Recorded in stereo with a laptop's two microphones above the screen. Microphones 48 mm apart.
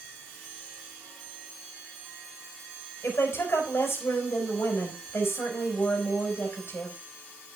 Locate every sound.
3.0 s a woman speaking: 75° left (ahead or behind), 5 m